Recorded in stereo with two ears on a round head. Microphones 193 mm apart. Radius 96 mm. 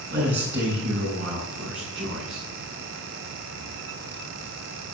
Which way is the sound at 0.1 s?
50° right (ahead or behind).